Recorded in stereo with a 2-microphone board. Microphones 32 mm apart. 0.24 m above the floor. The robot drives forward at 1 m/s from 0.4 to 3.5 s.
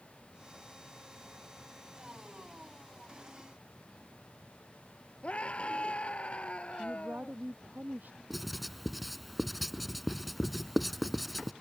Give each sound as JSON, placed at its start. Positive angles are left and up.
{"t": 5.2, "sound": "a scream", "side_deg": 40}
{"t": 6.8, "sound": "a woman speaking", "side_deg": -75}
{"t": 8.3, "sound": "writing", "side_deg": 0}